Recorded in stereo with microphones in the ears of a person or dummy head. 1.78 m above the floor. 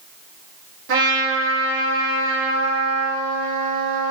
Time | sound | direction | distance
0.9 | a trumpet | 70° right (ahead or behind) | 1.3 m